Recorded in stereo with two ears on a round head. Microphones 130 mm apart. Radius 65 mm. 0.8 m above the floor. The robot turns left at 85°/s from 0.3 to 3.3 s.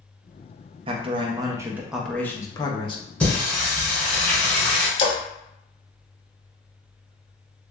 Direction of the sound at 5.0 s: 40° left (ahead or behind).